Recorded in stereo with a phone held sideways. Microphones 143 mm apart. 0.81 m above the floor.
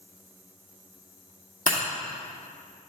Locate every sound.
1.7 s breaking glass: 70° left (ahead or behind), 2 m